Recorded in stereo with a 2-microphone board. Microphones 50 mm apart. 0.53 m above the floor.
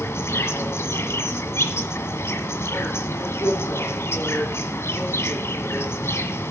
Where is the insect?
65° left (ahead or behind), 1.6 m.